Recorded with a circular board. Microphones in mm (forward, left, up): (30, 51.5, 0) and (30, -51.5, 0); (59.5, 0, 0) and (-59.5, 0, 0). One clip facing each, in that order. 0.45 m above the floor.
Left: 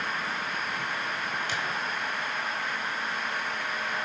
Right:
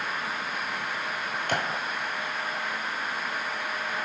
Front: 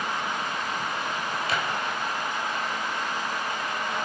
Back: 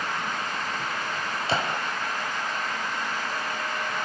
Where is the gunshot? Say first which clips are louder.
Right 3 dB, back 4 dB; 120° right, 2.0 m.